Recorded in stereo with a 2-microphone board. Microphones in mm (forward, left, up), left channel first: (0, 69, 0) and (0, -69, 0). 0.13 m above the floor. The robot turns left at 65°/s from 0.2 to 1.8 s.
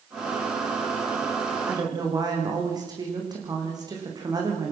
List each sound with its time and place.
1.7 s a woman speaking: 20° right (ahead or behind), 9.5 m; by 4.7 s 30° right (ahead or behind), 9.5 m